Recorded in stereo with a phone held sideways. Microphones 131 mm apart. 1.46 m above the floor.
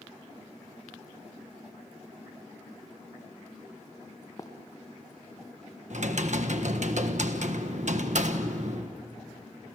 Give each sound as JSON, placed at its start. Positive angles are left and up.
{"t": 4.4, "sound": "running footsteps", "side_deg": 25, "distance_m": 2.0}
{"t": 5.9, "sound": "typing on a keyboard", "side_deg": -65, "distance_m": 1.4}